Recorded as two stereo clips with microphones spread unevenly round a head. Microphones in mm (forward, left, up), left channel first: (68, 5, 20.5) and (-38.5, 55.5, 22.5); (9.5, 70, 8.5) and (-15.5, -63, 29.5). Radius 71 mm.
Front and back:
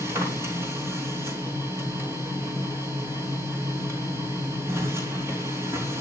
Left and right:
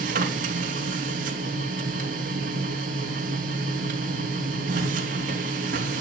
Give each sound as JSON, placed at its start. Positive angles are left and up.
{"t": 0.0, "sound": "a machine running", "azimuth_deg": -135, "distance_m": 4.0}